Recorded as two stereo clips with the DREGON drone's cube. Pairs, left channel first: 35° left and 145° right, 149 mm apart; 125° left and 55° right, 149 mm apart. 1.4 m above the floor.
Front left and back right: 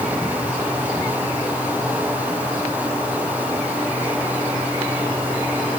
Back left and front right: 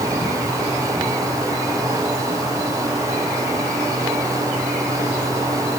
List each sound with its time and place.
Only background noise.